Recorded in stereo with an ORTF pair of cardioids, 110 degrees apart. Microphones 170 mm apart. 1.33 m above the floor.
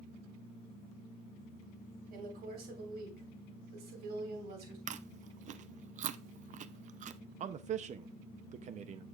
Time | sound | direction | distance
2.1 | a woman speaking | 55° right | 4 m
4.9 | chewing | 45° right | 0.5 m
7.4 | a man speaking | 45° right | 0.6 m